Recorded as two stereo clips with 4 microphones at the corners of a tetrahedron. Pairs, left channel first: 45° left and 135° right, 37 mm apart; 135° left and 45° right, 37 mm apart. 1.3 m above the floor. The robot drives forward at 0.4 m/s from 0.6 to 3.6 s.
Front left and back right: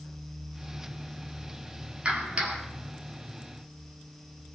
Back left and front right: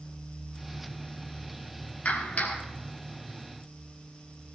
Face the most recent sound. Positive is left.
turn(degrees=175)